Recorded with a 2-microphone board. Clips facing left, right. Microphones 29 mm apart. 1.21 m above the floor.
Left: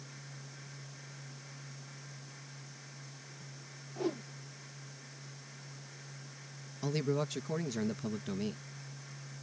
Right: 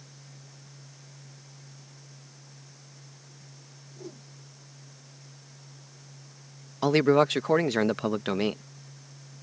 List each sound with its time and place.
4.0 s a whoosh: 55° left (ahead or behind)
6.8 s a man speaking: 85° right